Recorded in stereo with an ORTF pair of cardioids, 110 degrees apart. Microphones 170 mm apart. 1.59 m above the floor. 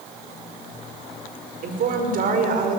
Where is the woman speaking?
55° right, 5 m.